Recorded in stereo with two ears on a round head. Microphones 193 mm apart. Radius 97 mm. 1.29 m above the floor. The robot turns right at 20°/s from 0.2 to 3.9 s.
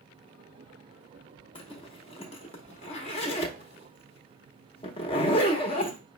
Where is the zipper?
25° left (ahead or behind), 0.8 m.